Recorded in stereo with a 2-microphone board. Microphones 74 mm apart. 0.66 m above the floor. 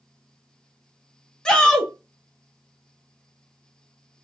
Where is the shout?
15° left (ahead or behind), 0.9 m.